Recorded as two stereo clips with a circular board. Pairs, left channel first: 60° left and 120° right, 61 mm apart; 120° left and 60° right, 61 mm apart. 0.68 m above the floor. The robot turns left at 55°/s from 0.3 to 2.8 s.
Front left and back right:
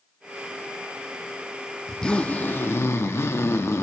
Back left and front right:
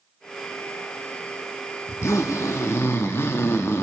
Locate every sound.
1.9 s a zipper: 140° left, 0.7 m; by 3.8 s 90° left, 0.7 m